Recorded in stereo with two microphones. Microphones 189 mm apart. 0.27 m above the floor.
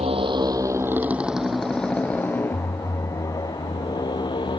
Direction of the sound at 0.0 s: 30° right (ahead or behind).